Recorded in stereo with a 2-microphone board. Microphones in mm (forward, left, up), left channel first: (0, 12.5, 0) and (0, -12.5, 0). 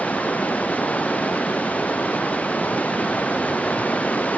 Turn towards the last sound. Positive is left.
turn(degrees=90)